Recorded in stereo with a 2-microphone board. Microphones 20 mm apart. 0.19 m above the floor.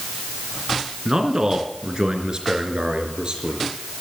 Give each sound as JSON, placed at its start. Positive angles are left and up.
{"t": 1.1, "sound": "a man speaking", "side_deg": -30, "distance_m": 2.5}